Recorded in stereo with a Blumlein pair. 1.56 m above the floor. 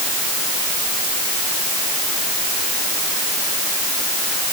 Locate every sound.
Only background noise.